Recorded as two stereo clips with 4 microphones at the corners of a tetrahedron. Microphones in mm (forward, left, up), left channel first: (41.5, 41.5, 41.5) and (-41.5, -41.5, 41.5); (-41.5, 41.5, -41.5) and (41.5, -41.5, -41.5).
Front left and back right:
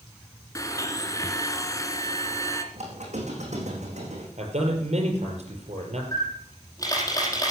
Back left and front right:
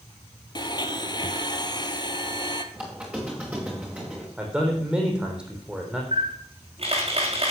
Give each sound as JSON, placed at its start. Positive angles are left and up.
{"t": 0.6, "sound": "a blender", "azimuth_deg": 100, "distance_m": 1.4}
{"t": 2.7, "sound": "a squeak", "azimuth_deg": -125, "distance_m": 4.0}
{"t": 4.4, "sound": "a man speaking", "azimuth_deg": -125, "distance_m": 4.5}
{"t": 6.1, "sound": "a camera shutter", "azimuth_deg": -15, "distance_m": 4.5}